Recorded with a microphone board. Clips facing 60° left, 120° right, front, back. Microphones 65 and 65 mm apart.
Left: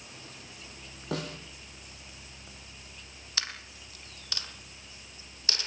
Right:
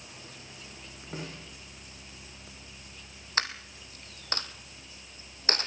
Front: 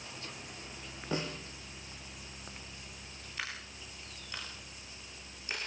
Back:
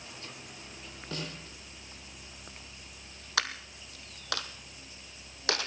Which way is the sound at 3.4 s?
170° right.